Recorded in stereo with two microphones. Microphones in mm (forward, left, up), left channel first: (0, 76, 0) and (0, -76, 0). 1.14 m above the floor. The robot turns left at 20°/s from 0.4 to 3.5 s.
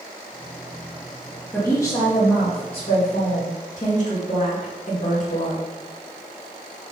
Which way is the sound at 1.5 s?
165° left.